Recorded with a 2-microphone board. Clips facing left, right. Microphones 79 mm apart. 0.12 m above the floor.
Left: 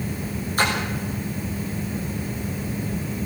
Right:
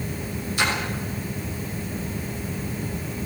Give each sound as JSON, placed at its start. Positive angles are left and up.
{"t": 0.6, "sound": "a splash", "side_deg": 45, "distance_m": 6.0}